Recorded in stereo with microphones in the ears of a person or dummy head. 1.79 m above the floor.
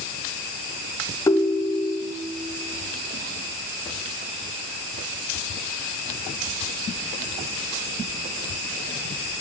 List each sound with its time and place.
1.3 s a ringtone: 15° left (ahead or behind), 1.7 m